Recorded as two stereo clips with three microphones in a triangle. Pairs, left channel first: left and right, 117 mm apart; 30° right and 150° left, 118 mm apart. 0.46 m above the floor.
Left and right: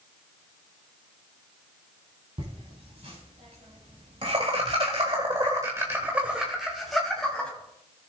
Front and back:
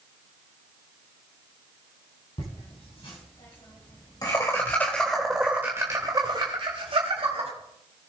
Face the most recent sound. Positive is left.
turn(degrees=170)